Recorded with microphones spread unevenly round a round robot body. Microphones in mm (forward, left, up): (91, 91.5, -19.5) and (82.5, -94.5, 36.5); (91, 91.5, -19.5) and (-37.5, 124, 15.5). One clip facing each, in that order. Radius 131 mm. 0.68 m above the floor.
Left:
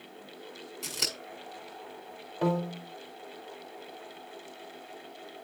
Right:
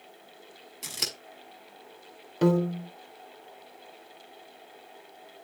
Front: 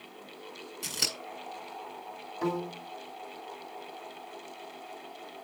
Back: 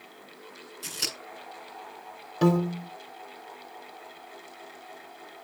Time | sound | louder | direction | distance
0.8 | scissors | even, even | 5° right | 6.5 m
2.4 | a piano | right 6 dB, back 9 dB | 155° right | 1.0 m